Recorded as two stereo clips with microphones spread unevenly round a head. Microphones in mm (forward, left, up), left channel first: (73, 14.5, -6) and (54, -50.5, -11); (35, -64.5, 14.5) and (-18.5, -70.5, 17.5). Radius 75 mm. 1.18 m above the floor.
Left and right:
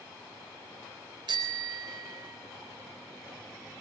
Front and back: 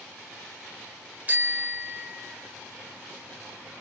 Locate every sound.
1.3 s a bicycle bell: 115° right, 3.5 m